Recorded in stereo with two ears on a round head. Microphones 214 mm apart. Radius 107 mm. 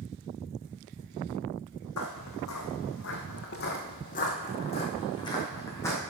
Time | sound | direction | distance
2.0 | footsteps | 70° left (ahead or behind) | 1.9 m